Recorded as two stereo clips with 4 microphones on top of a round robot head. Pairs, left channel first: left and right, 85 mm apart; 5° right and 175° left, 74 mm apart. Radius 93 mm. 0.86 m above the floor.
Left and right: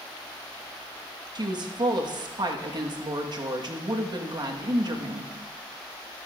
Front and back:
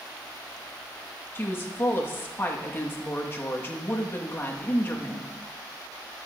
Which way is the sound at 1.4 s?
60° right.